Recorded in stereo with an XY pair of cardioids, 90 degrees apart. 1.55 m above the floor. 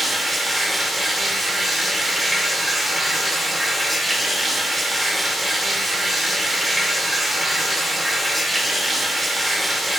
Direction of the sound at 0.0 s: 15° right.